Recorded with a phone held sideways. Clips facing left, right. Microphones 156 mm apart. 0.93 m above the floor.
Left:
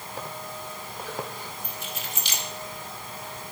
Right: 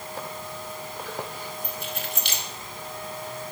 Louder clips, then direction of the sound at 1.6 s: Right 3 dB; 65° right (ahead or behind).